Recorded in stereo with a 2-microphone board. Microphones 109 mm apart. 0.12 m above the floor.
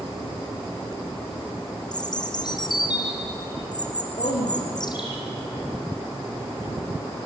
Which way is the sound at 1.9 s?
45° left (ahead or behind).